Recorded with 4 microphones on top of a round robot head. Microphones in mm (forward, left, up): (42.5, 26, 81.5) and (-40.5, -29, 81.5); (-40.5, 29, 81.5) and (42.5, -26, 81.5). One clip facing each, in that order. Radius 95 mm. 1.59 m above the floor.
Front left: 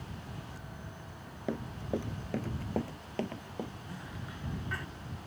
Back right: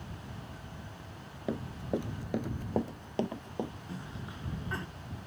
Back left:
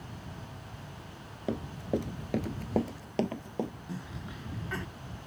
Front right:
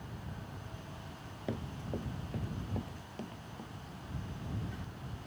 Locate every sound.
1.5 s running footsteps: 140° left; by 3.7 s 145° left
3.9 s a cough: 150° left